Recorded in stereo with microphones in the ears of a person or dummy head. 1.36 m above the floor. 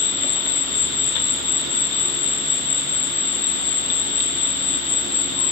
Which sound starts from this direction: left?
An insect, at 0.0 s.